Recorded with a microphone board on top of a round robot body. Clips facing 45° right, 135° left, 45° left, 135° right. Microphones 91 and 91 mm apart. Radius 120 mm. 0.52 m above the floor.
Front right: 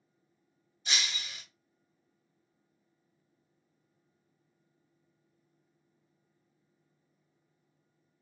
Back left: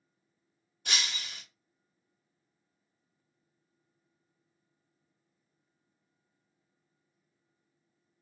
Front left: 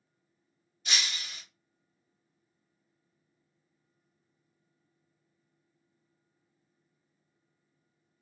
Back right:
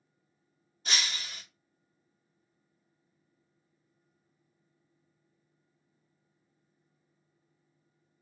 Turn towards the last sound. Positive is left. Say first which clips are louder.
# back left 1 dB, back right 1 dB
turn(degrees=170)